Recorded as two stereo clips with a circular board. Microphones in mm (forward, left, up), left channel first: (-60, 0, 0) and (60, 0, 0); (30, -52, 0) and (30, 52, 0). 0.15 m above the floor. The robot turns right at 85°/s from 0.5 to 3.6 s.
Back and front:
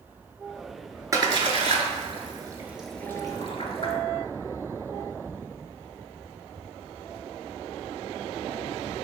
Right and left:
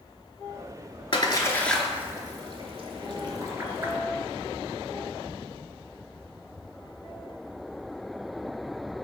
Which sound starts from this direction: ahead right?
A splash, at 1.1 s.